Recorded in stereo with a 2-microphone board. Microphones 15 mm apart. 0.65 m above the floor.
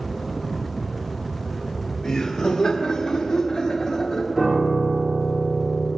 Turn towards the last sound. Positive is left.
turn(degrees=-25)  # may be behind; listen again after turning